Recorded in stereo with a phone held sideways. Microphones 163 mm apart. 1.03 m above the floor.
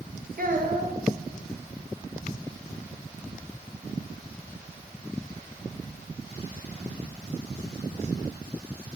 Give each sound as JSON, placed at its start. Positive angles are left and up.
{"t": 0.4, "sound": "a child speaking", "side_deg": -60, "distance_m": 0.9}